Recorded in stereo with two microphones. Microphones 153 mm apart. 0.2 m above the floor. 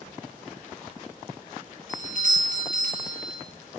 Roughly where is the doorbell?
Right.